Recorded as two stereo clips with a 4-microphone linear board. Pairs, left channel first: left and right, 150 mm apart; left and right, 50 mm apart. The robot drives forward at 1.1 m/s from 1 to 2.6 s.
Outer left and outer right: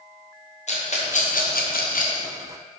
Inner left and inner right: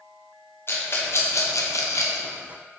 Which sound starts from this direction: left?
A rattle, at 0.7 s.